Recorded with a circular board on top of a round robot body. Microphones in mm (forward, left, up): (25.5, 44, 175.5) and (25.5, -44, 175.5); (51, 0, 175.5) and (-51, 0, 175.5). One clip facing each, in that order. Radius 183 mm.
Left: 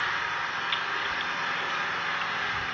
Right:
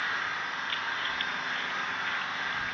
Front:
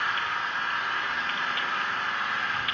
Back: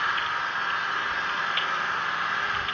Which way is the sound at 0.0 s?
110° left.